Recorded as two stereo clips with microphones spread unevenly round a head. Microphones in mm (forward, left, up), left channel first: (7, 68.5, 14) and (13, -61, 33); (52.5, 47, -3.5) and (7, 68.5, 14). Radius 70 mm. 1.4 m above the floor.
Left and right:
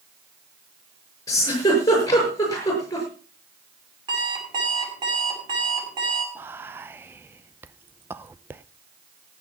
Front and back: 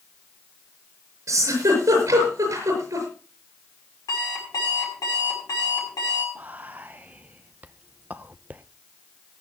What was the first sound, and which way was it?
A giggle, 160° left.